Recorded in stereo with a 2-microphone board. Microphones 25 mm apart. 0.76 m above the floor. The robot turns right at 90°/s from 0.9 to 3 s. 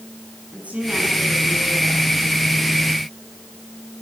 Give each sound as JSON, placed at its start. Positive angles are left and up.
{"t": 0.5, "sound": "a woman speaking", "azimuth_deg": -75, "distance_m": 8.0}